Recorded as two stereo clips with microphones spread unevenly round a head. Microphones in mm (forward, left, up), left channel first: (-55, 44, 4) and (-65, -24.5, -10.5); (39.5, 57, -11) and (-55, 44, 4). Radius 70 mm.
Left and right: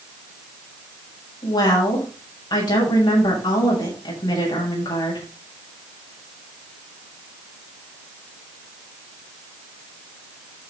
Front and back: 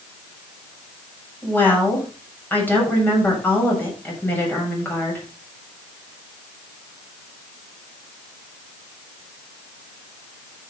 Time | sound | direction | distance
1.4 | a woman speaking | 80° left | 7 m